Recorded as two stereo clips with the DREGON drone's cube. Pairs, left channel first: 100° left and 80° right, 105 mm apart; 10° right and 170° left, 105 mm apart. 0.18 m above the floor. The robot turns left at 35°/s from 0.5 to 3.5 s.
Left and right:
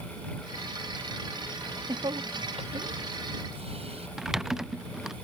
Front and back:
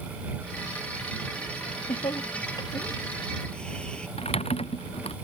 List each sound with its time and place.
1.6 s laughter: 25° right; by 4.1 s 90° right
4.2 s typing on a keyboard: 5° left